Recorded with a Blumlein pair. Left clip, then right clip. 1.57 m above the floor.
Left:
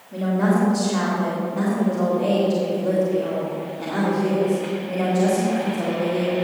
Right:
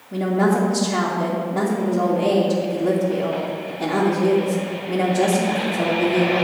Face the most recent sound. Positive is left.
turn(degrees=-30)